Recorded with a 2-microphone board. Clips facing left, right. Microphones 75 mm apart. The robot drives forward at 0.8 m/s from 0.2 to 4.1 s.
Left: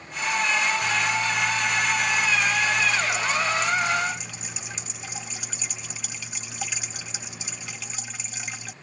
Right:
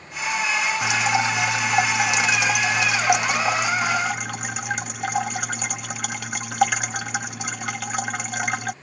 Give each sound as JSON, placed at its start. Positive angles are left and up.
{"t": 0.8, "sound": "dripping", "side_deg": -80}